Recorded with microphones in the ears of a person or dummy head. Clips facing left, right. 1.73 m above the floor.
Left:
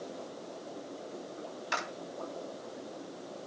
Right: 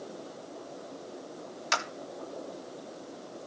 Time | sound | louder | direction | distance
1.7 | a clap | right 4 dB | 65° right (ahead or behind) | 3 m